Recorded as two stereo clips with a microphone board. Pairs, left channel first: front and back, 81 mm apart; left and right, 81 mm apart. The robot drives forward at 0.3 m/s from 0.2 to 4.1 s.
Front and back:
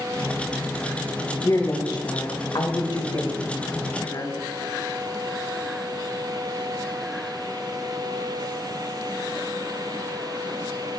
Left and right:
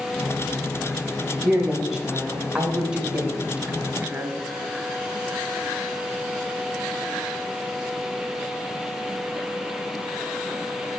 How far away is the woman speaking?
About 1.4 m.